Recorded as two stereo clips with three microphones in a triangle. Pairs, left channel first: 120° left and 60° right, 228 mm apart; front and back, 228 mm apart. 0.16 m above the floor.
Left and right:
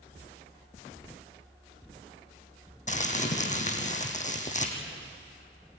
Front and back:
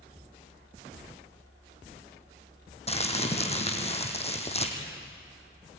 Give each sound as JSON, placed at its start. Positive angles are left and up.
{"t": 2.9, "sound": "crumpling", "azimuth_deg": 65, "distance_m": 3.0}